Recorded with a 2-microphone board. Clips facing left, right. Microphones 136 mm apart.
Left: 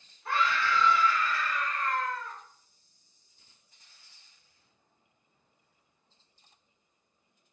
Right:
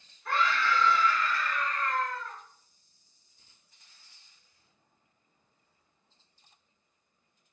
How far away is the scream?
About 1.6 m.